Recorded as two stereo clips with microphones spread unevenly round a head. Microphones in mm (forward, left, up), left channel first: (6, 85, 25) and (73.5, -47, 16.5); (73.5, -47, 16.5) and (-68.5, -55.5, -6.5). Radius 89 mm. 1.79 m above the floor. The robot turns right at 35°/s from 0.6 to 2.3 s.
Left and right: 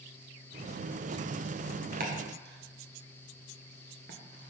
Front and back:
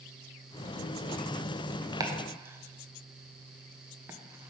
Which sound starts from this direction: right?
Chopping, at 2.0 s.